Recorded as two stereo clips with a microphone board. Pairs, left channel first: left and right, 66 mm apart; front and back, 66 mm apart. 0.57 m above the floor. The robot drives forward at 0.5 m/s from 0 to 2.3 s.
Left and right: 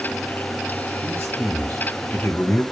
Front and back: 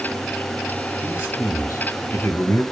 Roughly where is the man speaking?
Ahead left.